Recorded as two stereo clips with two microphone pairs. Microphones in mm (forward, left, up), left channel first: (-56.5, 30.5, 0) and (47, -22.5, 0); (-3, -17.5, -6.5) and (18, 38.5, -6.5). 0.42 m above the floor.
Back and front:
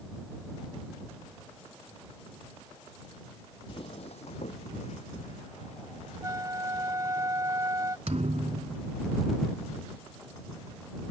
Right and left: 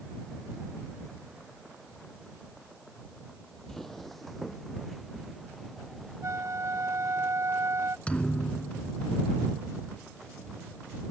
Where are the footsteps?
170° left; by 7.2 s 160° left.